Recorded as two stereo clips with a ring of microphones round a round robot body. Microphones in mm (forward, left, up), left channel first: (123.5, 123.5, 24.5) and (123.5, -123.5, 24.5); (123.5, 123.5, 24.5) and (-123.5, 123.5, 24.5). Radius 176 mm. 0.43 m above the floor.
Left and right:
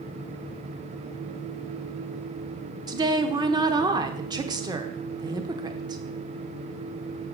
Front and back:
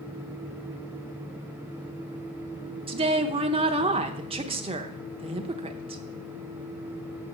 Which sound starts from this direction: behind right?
A woman speaking, at 2.9 s.